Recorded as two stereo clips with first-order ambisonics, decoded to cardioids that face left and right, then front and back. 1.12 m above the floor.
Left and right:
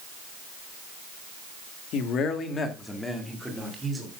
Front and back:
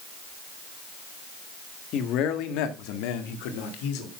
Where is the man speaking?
45° left, 1.7 m; by 4.1 s 15° right, 3 m.